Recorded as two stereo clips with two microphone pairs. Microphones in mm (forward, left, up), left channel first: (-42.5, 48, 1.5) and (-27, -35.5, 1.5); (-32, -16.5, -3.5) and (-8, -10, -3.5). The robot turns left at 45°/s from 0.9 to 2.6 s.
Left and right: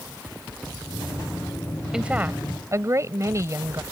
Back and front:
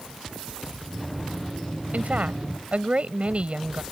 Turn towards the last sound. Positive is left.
turn(degrees=-25)